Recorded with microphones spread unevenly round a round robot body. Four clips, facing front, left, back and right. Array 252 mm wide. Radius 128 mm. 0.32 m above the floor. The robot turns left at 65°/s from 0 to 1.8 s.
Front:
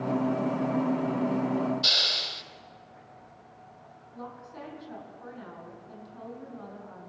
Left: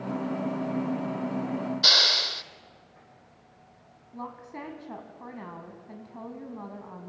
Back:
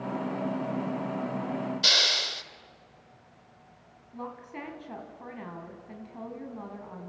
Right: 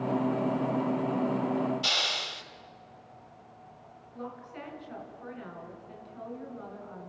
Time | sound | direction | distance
1.8 | a hiss | 115° left | 0.9 m
4.1 | a woman speaking | 120° left | 3.5 m